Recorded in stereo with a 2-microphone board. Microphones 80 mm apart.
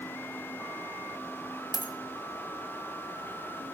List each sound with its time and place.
1.7 s a dropped coin: 55° left (ahead or behind), 1.3 m